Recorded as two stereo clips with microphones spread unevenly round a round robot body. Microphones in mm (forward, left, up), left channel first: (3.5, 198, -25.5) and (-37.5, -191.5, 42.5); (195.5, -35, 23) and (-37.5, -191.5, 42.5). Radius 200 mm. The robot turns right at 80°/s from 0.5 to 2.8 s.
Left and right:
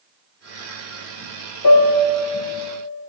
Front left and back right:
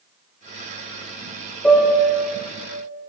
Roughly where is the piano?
Behind left.